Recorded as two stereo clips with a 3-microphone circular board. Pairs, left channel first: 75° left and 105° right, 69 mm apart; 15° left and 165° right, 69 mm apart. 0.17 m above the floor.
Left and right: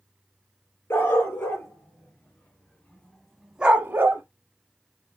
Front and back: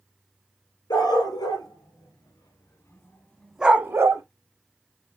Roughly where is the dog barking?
Ahead.